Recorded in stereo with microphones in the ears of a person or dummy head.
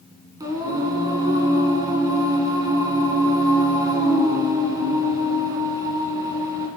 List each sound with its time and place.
0.4 s singing: 25° right (ahead or behind), 2.5 m